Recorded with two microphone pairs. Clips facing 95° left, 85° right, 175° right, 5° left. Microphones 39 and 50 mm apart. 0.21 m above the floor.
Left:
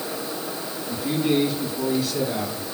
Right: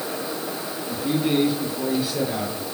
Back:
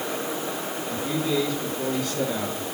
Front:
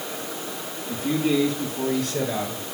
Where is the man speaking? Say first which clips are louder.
Even, front 4 dB; 5° right, 6 m; by 2.6 s 10° right, 6.5 m.